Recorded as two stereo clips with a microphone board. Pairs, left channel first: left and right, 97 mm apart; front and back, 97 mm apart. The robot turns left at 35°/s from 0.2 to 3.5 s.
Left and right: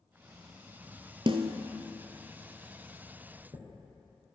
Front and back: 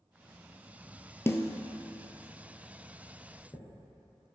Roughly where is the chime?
Ahead right.